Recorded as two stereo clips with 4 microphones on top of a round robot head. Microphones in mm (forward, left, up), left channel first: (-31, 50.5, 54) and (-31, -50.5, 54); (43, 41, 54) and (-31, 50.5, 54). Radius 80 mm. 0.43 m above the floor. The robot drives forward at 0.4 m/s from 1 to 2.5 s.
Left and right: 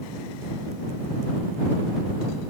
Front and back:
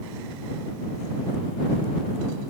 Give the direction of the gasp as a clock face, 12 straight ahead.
I don't hear a gasp.